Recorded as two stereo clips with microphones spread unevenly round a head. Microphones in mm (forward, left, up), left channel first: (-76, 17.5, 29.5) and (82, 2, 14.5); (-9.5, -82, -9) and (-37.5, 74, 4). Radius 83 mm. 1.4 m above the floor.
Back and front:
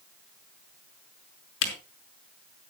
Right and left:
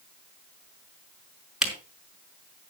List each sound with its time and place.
1.6 s a camera shutter: 175° right, 5 m